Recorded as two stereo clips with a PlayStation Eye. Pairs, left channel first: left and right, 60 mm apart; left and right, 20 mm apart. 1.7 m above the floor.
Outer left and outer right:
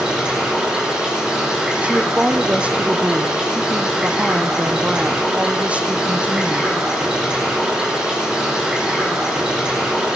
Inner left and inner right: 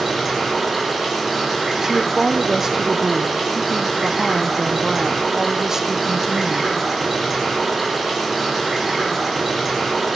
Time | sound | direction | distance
0.0 | running water | 10° right (ahead or behind) | 5 m
1.8 | a woman speaking | 20° right (ahead or behind) | 0.6 m